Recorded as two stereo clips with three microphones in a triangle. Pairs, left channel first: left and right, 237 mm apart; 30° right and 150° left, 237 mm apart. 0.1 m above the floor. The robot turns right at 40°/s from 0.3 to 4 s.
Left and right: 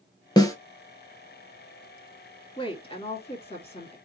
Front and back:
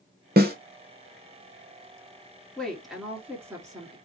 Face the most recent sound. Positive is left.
turn(degrees=105)